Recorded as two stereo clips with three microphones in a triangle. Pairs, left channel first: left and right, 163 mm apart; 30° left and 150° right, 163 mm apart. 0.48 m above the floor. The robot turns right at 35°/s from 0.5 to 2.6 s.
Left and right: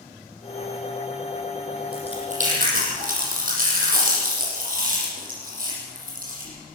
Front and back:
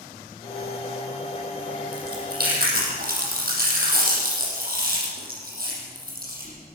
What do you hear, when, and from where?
1.9 s chewing: 145° right, 8.5 m; by 6.6 s 120° right, 8.5 m